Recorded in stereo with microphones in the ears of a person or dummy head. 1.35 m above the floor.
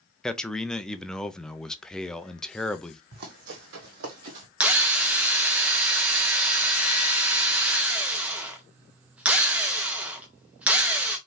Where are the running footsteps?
50° right (ahead or behind), 3 m; by 4.5 s 40° right (ahead or behind), 1.7 m.